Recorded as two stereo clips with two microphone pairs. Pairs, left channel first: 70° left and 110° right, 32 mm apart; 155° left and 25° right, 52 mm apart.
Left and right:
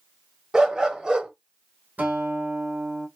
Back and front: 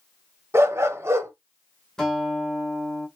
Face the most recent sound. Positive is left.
turn(degrees=-130)